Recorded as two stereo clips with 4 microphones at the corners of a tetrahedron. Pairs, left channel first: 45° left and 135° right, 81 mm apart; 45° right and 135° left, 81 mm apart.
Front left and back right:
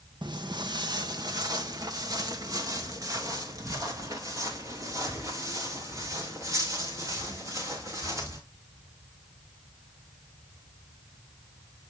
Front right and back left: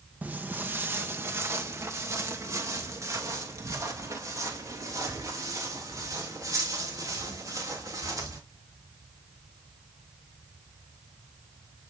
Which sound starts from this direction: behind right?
Footsteps, at 0.2 s.